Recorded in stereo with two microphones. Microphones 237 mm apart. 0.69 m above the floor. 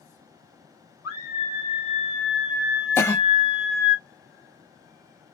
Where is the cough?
10° left (ahead or behind), 0.9 m.